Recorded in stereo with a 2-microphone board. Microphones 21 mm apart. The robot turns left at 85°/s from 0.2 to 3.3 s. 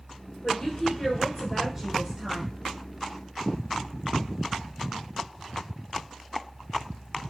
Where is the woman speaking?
105° left, 1.5 m; by 2.4 s 65° right, 1.5 m.